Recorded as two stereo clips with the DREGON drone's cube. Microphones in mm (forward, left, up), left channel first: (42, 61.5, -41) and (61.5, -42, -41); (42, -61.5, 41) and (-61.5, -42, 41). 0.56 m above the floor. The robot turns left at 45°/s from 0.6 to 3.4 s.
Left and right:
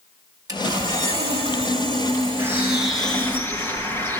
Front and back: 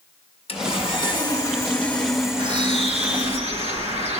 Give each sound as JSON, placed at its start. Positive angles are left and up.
{"t": 0.5, "sound": "sawing", "azimuth_deg": -30, "distance_m": 2.0}
{"t": 2.4, "sound": "a bird", "azimuth_deg": -150, "distance_m": 5.0}